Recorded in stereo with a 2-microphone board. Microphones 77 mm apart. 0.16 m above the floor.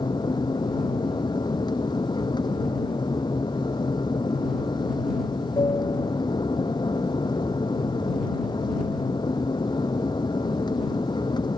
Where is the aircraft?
70° left (ahead or behind).